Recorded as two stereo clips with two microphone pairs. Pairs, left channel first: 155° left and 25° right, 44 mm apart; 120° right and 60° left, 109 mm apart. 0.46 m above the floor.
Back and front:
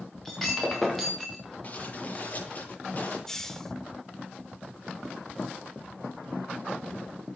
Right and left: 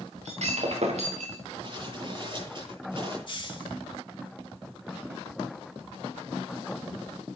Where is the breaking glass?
65° left, 3 m.